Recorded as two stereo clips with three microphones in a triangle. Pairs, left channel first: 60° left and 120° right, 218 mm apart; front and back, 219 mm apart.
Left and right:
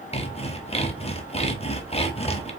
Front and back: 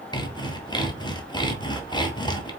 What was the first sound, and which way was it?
Sawing, 45° left.